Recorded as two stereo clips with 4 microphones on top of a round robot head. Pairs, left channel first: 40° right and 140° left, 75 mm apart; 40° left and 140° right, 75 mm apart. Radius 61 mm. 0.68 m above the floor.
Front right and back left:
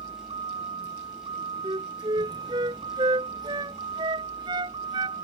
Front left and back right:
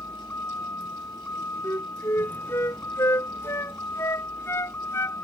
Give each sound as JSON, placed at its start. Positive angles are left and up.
{"t": 0.0, "sound": "a vehicle", "azimuth_deg": 110}
{"t": 1.6, "sound": "a flute", "azimuth_deg": 100}